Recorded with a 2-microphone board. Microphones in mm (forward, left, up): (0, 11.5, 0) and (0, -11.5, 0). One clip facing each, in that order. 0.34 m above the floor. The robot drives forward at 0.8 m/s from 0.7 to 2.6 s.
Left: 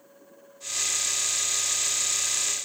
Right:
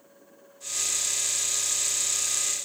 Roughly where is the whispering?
No whispering in this recording.